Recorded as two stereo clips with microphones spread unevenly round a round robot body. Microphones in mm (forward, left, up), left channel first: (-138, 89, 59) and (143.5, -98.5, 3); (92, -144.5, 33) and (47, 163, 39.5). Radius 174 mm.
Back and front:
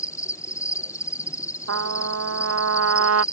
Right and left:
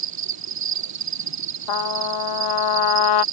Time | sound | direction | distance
0.0 | an insect | 65° left | ?
1.7 | a trumpet | 85° right | ?